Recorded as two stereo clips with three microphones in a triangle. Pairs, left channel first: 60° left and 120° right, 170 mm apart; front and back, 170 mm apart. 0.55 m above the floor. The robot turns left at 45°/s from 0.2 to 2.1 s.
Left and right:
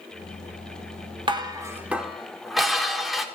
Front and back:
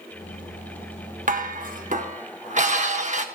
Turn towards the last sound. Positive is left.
turn(degrees=150)